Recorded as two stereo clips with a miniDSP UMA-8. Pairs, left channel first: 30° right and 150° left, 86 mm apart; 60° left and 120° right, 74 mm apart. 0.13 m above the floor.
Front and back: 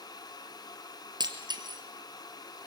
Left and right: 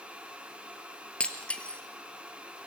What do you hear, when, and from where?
1.2 s breaking glass: 135° left, 1.7 m